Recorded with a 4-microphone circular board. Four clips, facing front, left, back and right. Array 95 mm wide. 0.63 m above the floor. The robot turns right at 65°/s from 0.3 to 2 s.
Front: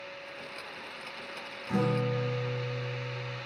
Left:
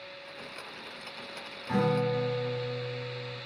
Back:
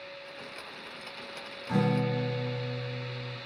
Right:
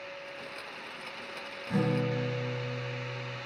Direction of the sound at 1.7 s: 125° left.